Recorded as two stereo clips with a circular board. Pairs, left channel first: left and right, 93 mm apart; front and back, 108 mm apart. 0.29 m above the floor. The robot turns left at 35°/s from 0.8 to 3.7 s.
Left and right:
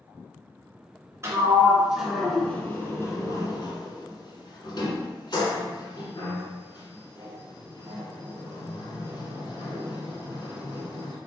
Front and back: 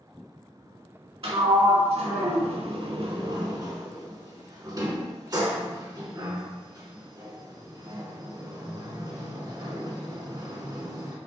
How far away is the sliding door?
About 0.7 m.